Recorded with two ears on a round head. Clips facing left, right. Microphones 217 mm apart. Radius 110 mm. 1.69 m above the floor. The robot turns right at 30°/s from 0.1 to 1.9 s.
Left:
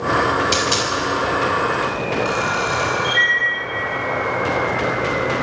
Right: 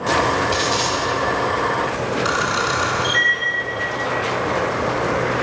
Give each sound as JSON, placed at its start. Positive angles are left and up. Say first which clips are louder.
{"t": 0.5, "sound": "a dropped coin", "louder": "even", "side_deg": 60, "distance_m": 5.5}
{"t": 2.2, "sound": "a camera shutter", "louder": "left 1 dB", "side_deg": -25, "distance_m": 7.0}